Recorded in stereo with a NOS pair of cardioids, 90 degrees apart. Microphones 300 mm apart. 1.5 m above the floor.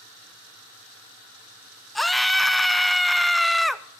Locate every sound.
1.9 s a scream: straight ahead, 0.7 m